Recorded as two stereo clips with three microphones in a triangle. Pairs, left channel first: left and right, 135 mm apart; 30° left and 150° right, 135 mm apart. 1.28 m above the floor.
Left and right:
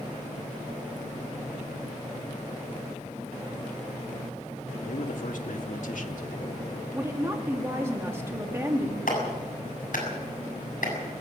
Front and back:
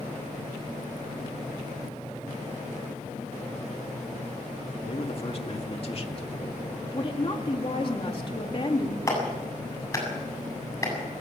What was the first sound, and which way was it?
A man speaking, 75° left.